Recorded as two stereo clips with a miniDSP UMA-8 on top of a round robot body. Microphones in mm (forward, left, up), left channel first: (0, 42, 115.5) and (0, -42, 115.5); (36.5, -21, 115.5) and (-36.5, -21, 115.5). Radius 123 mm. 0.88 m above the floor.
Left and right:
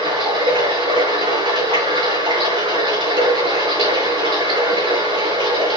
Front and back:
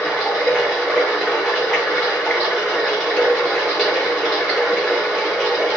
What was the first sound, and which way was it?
Running water, 90° right.